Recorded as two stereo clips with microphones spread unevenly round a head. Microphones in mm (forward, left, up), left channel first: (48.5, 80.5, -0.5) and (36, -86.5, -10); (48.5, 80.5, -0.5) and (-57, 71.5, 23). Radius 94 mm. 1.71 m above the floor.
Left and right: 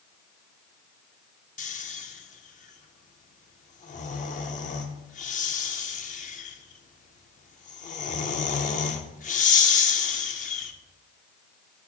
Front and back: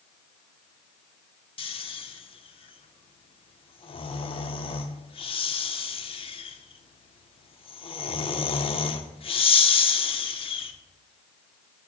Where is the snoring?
45° left, 0.6 m.